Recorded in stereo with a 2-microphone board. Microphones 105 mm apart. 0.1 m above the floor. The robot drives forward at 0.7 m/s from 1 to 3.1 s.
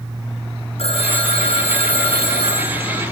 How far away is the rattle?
No rattle in this recording.